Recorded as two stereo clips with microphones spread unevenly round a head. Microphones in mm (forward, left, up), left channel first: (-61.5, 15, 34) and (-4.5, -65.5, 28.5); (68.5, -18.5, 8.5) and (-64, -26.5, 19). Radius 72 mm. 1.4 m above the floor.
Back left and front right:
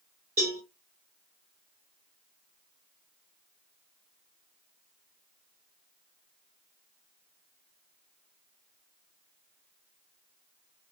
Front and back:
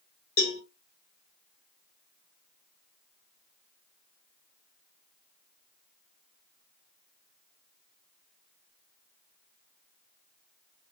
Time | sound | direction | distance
0.4 | a cowbell | 30° left | 1.8 m